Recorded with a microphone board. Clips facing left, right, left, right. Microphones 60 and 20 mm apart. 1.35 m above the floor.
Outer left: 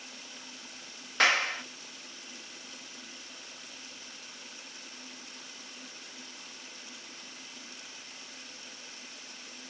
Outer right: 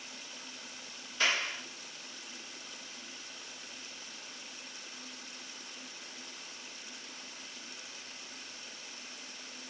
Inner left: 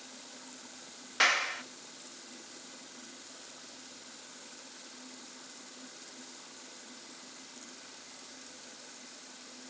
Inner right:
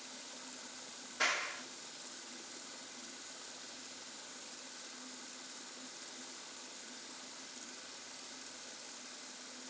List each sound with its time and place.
1.2 s a clap: 65° left (ahead or behind), 1.3 m